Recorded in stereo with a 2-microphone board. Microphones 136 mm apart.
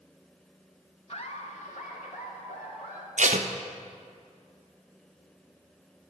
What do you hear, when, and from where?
1.1 s laughter: 50° left (ahead or behind), 1.3 m; by 3.1 s 85° left, 3.5 m
3.2 s tape being pulled: 70° right (ahead or behind), 0.7 m